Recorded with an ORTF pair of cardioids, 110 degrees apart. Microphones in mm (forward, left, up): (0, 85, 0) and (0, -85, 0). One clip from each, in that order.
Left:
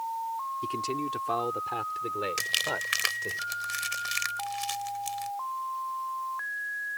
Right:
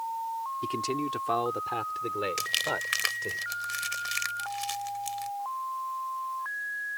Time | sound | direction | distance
0.6 | a man speaking | 15° right | ?
2.4 | crumpling | 5° left | ?